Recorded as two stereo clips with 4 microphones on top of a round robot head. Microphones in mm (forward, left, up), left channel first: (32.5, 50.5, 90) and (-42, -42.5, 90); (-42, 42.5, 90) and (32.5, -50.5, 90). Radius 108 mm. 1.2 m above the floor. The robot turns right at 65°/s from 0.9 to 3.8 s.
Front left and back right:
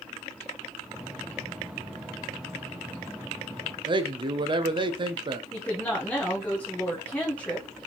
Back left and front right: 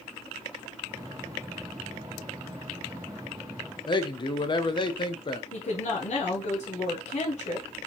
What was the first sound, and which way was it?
A man speaking, straight behind.